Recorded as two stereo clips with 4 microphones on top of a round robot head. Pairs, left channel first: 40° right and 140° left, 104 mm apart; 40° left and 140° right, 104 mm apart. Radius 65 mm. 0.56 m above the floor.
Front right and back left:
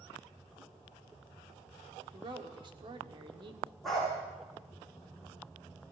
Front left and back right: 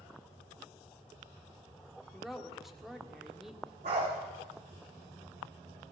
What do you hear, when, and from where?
2.1 s a woman speaking: 135° left, 1.7 m
3.8 s a dog barking: 130° right, 9.5 m